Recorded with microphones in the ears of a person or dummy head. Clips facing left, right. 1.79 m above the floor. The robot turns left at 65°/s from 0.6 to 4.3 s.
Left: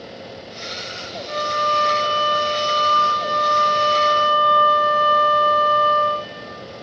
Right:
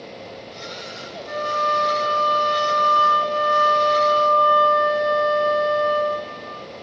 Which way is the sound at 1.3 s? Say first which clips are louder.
Even; 160° right.